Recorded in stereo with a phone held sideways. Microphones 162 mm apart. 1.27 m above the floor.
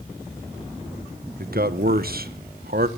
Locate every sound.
1.4 s a man speaking: 70° right (ahead or behind), 1.2 m